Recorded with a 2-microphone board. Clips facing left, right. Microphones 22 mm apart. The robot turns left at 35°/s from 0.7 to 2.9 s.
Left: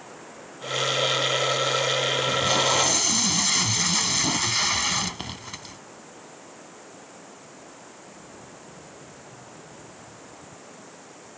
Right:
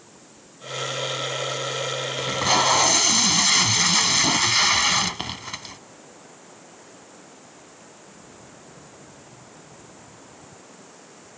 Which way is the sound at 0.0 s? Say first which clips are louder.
Left 7 dB; 90° left.